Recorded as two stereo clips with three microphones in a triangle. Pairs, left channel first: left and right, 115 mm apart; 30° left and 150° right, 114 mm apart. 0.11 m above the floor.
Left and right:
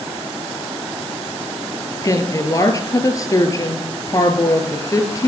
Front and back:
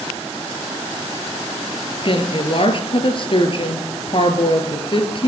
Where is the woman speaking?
40° left, 1.8 m.